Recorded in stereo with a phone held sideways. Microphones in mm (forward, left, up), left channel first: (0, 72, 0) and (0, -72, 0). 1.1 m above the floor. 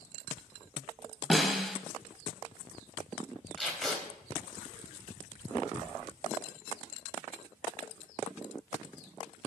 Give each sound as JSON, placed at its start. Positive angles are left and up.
{"t": 1.3, "sound": "a snare drum", "side_deg": 0, "distance_m": 1.8}
{"t": 3.6, "sound": "tape being pulled", "side_deg": 0, "distance_m": 3.5}